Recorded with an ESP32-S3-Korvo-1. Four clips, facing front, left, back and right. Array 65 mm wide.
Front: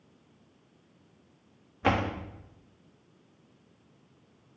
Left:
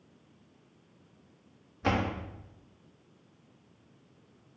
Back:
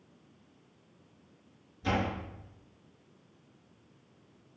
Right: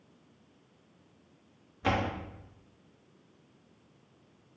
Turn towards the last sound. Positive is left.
turn(degrees=5)